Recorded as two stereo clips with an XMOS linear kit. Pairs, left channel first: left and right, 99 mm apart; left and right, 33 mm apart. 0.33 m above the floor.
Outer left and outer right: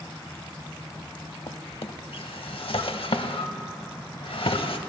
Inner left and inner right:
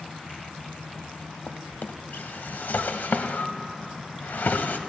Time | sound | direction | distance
1.5 | a drawer | 65° left (ahead or behind) | 0.6 m